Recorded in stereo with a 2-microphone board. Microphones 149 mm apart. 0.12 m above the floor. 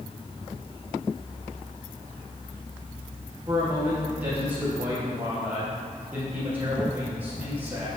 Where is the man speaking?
10° right (ahead or behind), 2.5 m.